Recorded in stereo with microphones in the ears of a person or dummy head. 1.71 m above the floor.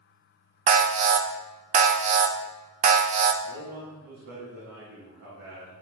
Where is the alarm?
35° right (ahead or behind), 0.7 m.